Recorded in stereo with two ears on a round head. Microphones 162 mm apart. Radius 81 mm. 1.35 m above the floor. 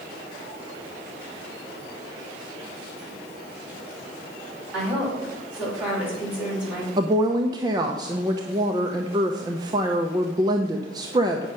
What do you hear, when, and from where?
4.7 s a woman speaking: 5° right (ahead or behind), 5 m
7.0 s a woman speaking: 25° right (ahead or behind), 0.7 m